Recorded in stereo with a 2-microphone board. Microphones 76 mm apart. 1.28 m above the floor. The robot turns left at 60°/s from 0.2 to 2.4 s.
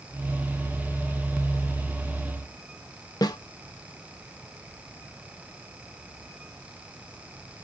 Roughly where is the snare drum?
Left.